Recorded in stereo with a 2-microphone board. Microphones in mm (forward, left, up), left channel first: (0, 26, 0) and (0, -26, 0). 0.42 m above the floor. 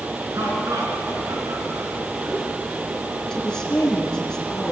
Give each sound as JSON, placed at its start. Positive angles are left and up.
{"t": 0.3, "sound": "laughter", "side_deg": -75, "distance_m": 4.5}
{"t": 3.3, "sound": "a woman speaking", "side_deg": 15, "distance_m": 5.0}